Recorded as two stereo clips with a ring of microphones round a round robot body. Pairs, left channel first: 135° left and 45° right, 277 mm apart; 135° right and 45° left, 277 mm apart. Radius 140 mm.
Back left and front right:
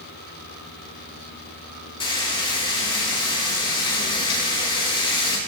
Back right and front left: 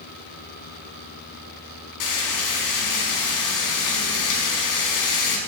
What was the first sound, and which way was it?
Frying, 150° right.